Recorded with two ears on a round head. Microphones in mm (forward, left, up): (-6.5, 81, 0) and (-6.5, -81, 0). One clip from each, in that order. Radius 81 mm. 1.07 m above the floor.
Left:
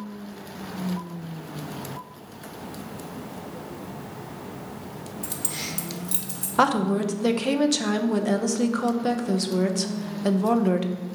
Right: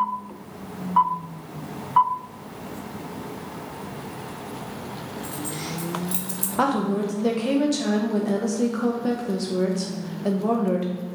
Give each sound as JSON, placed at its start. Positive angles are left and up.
{"t": 5.2, "sound": "keys jangling", "side_deg": 80, "distance_m": 1.0}
{"t": 6.6, "sound": "a woman speaking", "side_deg": 30, "distance_m": 0.6}